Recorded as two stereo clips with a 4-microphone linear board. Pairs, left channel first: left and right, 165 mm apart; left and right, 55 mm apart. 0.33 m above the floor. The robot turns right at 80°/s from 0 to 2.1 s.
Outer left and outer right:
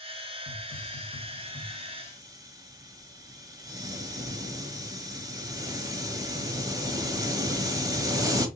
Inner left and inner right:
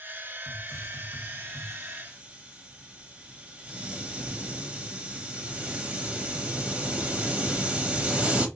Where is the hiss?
75° left, 1.0 m; by 8.5 s 150° right, 1.0 m.